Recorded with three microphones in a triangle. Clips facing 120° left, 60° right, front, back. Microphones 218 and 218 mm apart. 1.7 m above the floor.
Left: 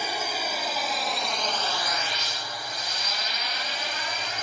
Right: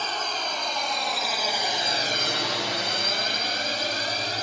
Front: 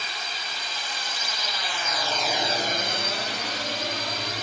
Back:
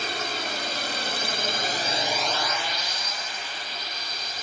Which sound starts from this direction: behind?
A drone, at 0.0 s.